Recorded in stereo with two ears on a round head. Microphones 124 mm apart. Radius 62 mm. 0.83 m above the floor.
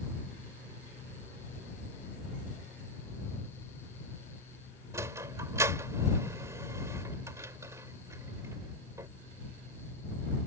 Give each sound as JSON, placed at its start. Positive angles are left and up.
{"t": 4.9, "sound": "a sliding door", "side_deg": -25}